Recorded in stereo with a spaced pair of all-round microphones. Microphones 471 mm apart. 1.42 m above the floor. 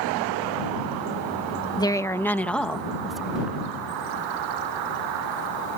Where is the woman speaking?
10° left (ahead or behind); by 3.6 s centre (ahead or behind).